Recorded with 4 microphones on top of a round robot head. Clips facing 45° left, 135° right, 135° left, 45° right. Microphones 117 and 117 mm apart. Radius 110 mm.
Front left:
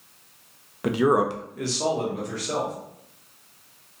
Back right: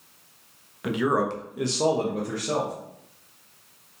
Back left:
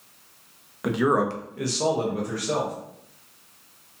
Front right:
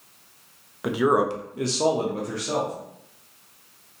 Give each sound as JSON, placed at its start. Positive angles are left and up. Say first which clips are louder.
{"t": 0.8, "sound": "a man speaking", "louder": "front left 3 dB, front right 1 dB", "azimuth_deg": 40, "distance_m": 0.6}